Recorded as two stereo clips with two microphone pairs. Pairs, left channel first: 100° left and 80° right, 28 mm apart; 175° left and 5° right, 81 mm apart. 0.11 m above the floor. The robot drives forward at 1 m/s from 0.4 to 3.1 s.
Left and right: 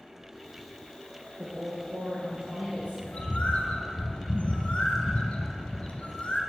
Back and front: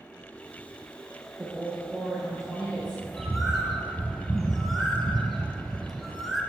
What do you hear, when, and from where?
1.4 s a woman speaking: 75° right, 2.5 m; by 3.0 s 115° right, 2.5 m
3.0 s a bird: 85° left, 0.8 m; by 6.4 s 90° left, 0.8 m